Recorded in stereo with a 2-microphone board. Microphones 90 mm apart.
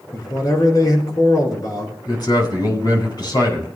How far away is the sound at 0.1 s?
About 4.5 m.